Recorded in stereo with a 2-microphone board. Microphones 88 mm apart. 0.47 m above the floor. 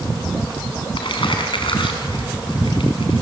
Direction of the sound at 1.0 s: 70° left (ahead or behind).